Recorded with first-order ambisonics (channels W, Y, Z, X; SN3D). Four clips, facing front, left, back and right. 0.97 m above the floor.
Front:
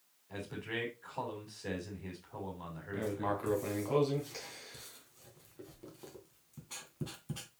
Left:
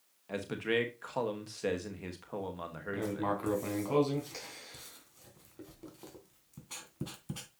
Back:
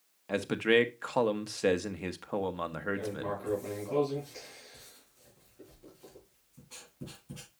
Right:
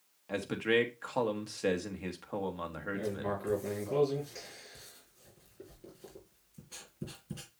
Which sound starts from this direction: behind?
A man speaking, at 0.3 s.